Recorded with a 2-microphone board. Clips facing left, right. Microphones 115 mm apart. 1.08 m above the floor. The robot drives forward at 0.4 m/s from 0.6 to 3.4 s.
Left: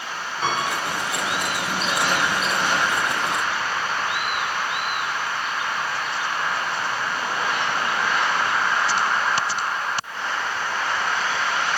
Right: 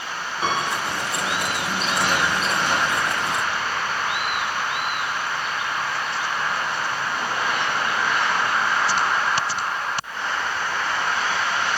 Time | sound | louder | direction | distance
0.4 | a piano | right 1 dB | 10° right (ahead or behind) | 0.9 m